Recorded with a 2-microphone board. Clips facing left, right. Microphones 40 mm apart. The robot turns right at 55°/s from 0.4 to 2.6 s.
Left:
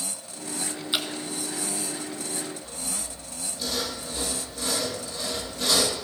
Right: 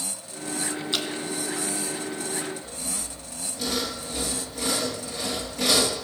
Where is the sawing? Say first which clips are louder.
Right 1 dB; 65° right (ahead or behind), 3 m.